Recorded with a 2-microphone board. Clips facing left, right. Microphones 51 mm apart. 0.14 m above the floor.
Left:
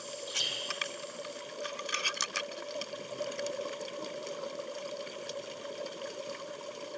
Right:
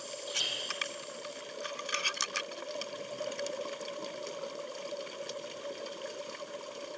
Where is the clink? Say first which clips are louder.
Even; 10° right (ahead or behind), 4.5 m.